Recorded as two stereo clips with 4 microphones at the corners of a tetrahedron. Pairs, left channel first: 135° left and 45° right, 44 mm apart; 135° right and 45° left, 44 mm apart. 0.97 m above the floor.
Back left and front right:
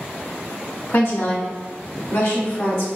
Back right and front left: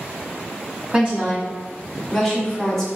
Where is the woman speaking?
110° left, 1.2 m; by 2.9 s 135° left, 2.0 m.